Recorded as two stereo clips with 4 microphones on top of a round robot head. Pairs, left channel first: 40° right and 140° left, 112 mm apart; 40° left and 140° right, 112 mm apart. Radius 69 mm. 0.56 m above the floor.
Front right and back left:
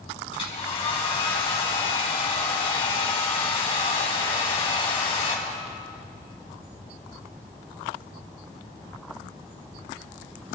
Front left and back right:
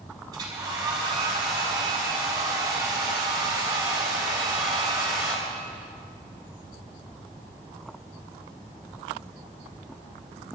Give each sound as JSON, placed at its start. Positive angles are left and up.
{"t": 0.3, "sound": "a hair dryer", "azimuth_deg": -80, "distance_m": 4.5}